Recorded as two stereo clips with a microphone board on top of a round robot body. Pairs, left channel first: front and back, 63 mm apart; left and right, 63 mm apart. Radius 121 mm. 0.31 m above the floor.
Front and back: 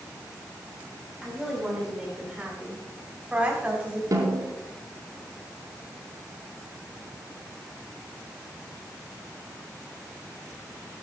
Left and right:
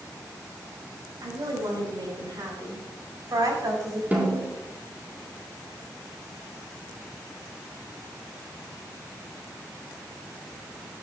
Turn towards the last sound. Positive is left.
turn(degrees=-155)